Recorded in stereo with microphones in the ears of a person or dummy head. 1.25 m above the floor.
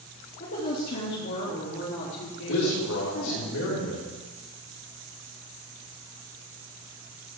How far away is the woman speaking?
About 2.0 m.